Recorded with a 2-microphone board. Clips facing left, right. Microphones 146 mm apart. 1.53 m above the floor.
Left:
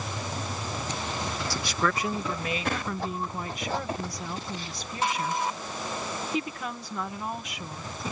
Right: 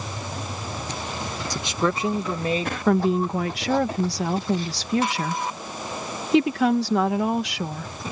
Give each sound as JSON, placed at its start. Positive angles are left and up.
{"t": 1.5, "sound": "a man speaking", "side_deg": -20}
{"t": 2.9, "sound": "a woman speaking", "side_deg": -85}